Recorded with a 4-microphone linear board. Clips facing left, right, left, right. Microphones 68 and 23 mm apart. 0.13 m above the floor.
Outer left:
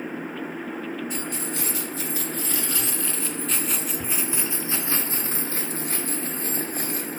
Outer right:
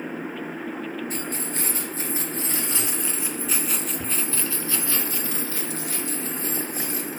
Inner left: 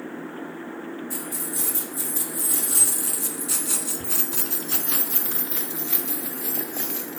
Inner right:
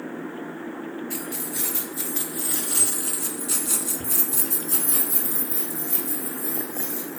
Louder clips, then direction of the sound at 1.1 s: Even, inner right 1 dB; 40° right (ahead or behind).